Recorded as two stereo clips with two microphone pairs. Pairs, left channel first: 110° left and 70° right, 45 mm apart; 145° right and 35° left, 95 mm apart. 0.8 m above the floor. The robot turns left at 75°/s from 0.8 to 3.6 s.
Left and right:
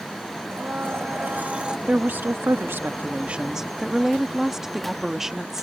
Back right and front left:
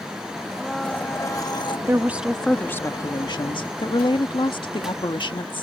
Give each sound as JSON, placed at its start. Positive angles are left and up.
{"t": 0.5, "sound": "a blender", "azimuth_deg": -60}
{"t": 1.9, "sound": "a woman speaking", "azimuth_deg": -15}